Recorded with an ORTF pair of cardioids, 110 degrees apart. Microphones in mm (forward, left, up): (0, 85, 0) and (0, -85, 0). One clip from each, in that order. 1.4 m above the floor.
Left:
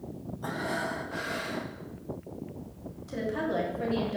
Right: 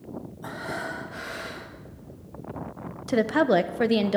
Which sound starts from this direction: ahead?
Breathing, at 0.4 s.